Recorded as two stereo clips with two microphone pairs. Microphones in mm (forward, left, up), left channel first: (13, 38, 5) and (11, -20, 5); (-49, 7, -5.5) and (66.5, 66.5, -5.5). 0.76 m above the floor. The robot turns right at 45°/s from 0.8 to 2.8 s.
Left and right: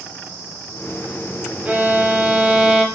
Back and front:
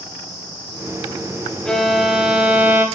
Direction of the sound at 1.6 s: 75° right.